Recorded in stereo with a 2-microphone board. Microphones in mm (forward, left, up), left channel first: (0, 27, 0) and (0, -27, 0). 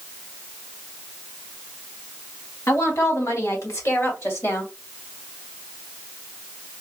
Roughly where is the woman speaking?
Left.